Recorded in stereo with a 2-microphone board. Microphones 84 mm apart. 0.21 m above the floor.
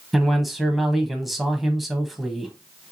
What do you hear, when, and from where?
0.1 s a man speaking: centre (ahead or behind), 1.0 m